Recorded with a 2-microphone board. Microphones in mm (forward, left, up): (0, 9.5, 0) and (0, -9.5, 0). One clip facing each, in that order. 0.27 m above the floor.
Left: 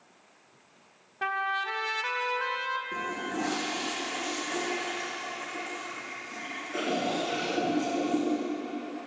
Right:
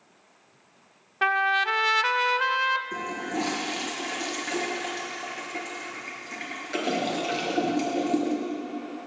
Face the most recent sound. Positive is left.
turn(degrees=-70)  # may be behind; listen again after turning